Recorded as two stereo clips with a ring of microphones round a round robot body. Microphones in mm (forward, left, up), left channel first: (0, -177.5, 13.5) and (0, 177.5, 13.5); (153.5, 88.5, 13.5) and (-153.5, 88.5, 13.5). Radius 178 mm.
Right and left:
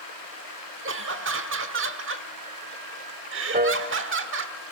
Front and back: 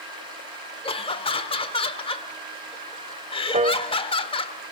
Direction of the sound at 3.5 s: 135° left.